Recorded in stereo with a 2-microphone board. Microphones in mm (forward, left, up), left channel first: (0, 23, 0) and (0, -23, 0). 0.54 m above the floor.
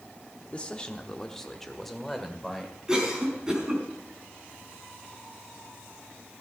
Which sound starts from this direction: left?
A man speaking, at 0.5 s.